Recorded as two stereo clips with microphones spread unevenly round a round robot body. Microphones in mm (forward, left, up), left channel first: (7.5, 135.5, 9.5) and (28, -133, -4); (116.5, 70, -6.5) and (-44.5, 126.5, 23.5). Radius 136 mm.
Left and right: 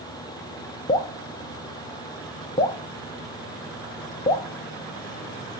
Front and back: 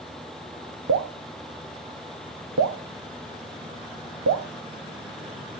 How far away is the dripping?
About 0.8 m.